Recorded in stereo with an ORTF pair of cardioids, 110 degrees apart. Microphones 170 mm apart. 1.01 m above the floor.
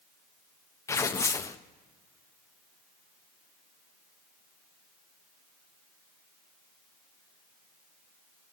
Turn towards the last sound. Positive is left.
turn(degrees=15)